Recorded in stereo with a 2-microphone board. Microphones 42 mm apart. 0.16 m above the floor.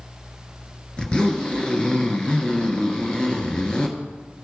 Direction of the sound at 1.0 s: 25° left (ahead or behind).